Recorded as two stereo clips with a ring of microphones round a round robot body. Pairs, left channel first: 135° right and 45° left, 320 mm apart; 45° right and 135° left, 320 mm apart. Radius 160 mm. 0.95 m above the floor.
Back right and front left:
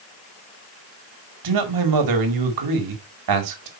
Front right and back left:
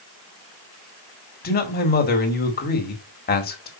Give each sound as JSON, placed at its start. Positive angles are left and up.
{"t": 1.4, "sound": "a man speaking", "azimuth_deg": 20, "distance_m": 1.9}